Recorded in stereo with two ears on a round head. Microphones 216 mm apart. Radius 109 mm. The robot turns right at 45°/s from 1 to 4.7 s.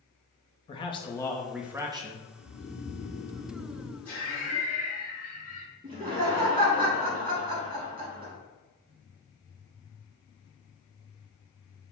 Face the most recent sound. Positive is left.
turn(degrees=-40)  # may be behind; listen again after turning